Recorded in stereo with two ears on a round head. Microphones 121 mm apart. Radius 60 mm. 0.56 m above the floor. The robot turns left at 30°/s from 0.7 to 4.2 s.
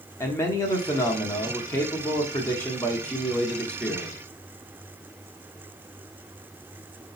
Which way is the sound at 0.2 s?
20° left (ahead or behind).